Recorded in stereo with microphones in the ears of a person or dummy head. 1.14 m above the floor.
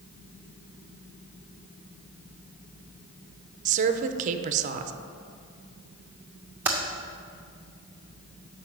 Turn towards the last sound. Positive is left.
turn(degrees=-5)  # may be behind; listen again after turning